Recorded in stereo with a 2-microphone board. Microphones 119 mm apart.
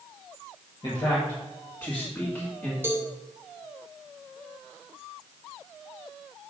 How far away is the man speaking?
About 1.6 m.